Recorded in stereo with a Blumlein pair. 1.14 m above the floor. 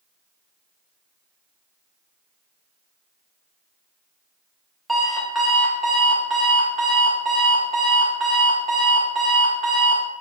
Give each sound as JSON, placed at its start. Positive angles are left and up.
{"t": 4.9, "sound": "an alarm clock", "azimuth_deg": 0, "distance_m": 1.1}